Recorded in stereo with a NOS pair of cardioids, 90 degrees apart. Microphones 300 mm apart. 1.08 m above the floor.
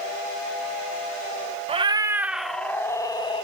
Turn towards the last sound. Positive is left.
turn(degrees=20)